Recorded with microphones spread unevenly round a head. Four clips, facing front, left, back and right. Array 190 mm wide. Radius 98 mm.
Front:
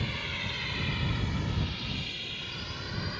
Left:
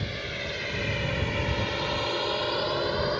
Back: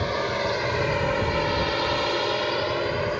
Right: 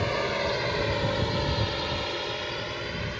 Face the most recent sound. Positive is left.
turn(degrees=145)